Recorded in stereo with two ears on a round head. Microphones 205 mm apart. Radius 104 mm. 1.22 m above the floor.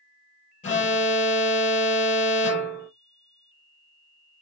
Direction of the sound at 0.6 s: 35° left (ahead or behind).